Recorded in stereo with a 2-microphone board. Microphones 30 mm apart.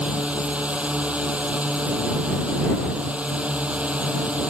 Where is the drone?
45° right (ahead or behind).